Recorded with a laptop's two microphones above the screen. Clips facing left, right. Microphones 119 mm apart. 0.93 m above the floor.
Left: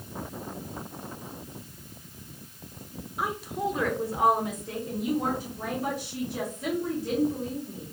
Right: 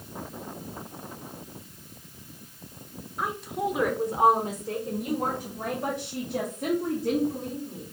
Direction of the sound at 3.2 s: 10° left (ahead or behind).